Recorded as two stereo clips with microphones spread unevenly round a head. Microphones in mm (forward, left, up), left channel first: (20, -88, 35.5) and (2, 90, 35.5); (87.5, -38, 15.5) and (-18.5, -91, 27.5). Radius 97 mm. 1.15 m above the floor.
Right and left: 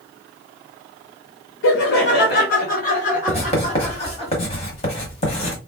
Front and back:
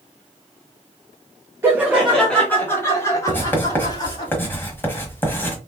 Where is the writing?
45° right, 1.2 m.